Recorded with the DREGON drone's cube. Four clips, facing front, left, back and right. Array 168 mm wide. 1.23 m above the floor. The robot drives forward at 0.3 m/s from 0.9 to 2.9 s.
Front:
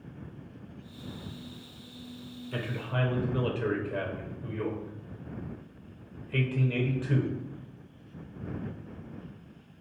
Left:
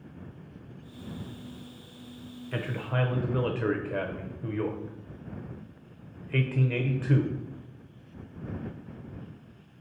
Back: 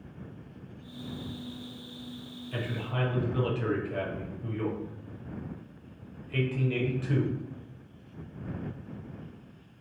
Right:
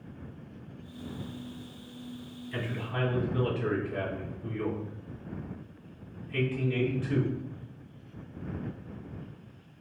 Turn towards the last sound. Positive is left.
turn(degrees=90)